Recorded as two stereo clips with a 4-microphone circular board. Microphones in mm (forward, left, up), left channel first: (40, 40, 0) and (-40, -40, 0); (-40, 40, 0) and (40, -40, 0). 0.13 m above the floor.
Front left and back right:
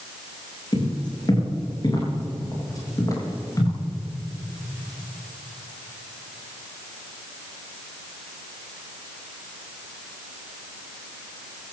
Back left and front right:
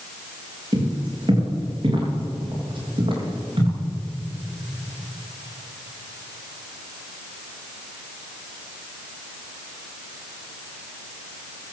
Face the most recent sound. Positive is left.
turn(degrees=-15)